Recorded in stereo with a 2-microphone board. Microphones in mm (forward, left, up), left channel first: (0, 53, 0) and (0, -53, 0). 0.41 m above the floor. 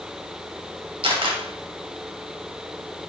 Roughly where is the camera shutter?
Right.